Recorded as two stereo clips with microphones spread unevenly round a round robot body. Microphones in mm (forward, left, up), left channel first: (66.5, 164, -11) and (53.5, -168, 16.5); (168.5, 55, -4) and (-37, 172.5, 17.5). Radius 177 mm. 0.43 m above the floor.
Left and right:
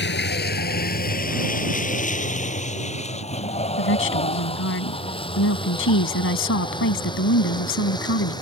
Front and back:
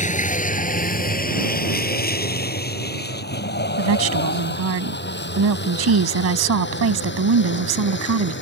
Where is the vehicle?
30° left; by 8.4 s 10° left.